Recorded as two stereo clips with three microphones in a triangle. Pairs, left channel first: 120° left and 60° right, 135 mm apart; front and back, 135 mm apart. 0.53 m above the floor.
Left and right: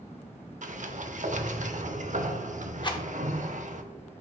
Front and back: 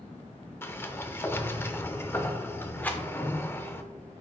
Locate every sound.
0.6 s a sliding door: 75° right, 0.7 m
2.8 s a rattle: 75° left, 0.9 m